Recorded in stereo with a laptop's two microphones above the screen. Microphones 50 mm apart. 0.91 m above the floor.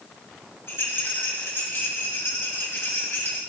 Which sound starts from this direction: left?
A rattle, at 0.7 s.